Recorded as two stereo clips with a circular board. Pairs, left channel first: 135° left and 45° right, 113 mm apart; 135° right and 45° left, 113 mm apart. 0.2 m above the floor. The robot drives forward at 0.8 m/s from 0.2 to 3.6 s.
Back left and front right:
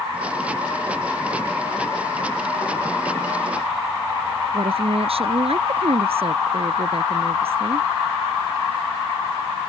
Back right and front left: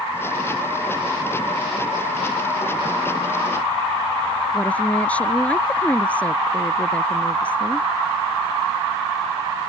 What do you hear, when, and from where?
4.5 s a woman speaking: 60° right